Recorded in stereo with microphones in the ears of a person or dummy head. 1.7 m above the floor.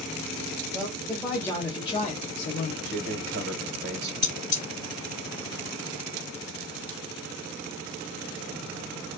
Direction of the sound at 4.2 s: 25° left (ahead or behind).